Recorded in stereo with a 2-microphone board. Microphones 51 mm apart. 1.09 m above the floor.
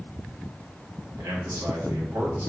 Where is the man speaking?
70° right (ahead or behind), 1.2 m.